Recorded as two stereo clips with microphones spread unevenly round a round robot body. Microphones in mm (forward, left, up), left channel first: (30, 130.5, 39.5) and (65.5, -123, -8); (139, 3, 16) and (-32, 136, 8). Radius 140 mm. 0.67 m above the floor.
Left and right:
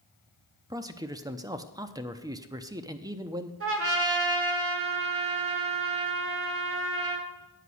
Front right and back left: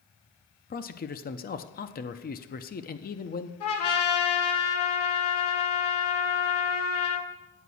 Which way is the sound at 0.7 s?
30° right.